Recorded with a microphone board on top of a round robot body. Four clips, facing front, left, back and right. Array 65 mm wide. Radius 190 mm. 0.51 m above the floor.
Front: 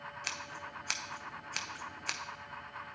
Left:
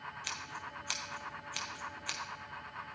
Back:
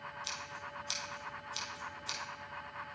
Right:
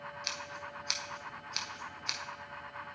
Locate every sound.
0.2 s scissors: 5° right, 0.7 m